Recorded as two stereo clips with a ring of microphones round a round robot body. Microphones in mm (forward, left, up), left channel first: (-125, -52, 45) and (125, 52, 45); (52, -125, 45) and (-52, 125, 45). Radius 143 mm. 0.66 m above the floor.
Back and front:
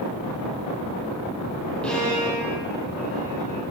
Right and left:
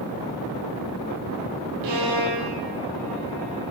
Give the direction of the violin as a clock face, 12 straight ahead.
8 o'clock.